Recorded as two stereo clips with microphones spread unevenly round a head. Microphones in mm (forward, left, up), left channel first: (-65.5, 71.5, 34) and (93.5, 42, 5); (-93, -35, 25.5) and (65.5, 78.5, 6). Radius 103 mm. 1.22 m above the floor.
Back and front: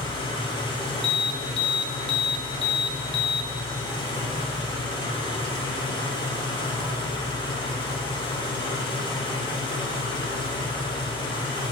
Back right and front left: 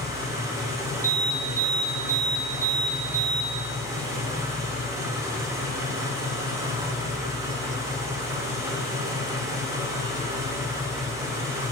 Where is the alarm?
110° left, 0.9 m.